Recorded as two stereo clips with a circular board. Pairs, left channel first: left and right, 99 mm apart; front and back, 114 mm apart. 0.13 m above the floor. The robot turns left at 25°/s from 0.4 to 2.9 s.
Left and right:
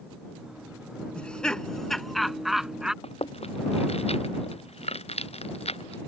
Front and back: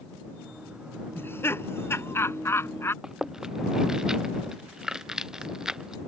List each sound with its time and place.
1.1 s laughter: 30° left; by 2.9 s 15° right
3.0 s chewing: 95° left